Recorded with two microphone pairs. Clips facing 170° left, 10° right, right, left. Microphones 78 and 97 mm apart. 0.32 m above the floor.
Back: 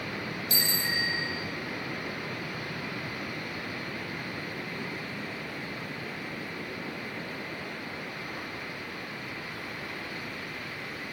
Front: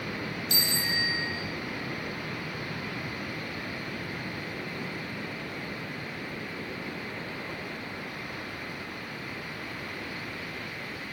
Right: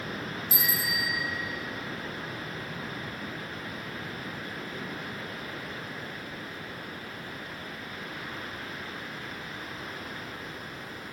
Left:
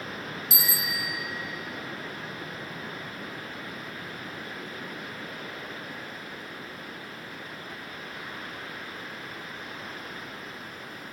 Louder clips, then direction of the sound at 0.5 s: Back 1 dB, right 2 dB; 80° left.